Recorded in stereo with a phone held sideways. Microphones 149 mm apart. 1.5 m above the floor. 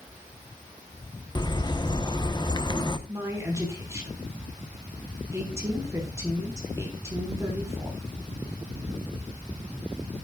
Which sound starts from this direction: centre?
A woman speaking, at 3.1 s.